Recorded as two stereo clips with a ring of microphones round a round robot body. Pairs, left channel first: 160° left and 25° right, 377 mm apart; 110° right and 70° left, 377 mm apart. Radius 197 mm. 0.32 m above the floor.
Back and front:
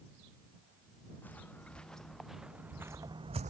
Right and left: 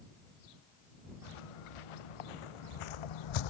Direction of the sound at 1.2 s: 115° right.